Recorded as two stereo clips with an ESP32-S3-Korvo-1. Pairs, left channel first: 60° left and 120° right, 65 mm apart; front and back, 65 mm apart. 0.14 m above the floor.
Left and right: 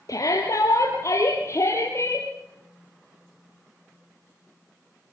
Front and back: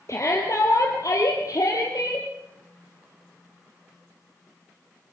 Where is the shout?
35° left, 3 m; by 2.3 s 15° left, 3.5 m.